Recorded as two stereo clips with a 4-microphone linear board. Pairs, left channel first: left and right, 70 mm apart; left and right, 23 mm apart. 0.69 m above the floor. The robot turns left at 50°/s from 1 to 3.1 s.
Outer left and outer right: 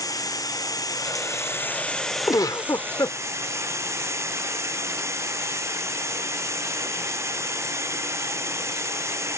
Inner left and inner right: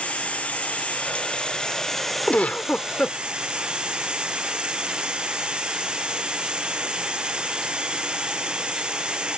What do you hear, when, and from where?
0.0 s running water: 65° left; by 9.4 s 40° right
2.3 s a giggle: 100° left; by 3.2 s 60° left